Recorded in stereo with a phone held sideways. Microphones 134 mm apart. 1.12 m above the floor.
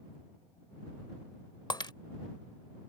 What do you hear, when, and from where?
1.7 s breaking glass: 35° left (ahead or behind)